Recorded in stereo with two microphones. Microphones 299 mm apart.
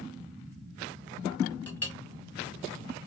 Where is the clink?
5° left (ahead or behind), 1.4 m.